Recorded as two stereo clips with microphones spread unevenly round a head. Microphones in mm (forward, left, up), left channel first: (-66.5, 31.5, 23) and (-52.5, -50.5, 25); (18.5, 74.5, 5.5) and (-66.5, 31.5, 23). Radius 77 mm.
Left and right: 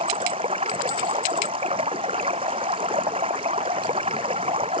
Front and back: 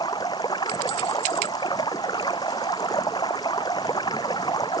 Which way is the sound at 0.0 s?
40° right.